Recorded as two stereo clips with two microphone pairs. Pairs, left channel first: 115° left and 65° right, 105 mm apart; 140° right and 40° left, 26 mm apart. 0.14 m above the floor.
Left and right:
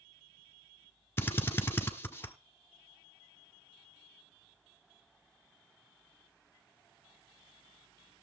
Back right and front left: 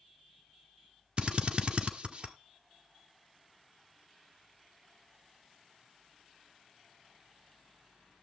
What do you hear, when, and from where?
1.2 s a drill: 55° left, 1.1 m